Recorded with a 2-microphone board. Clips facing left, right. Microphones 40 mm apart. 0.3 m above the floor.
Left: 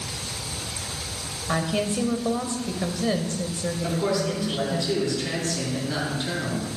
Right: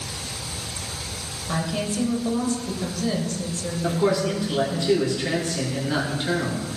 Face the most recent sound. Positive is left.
turn(degrees=-20)  # may be behind; listen again after turning